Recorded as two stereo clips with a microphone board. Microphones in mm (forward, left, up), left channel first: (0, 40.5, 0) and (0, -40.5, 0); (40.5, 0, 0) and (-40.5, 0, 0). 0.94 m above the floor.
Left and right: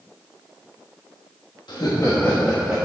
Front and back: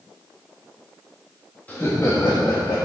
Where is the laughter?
70° left, 1.3 m; by 2.8 s 10° right, 1.4 m.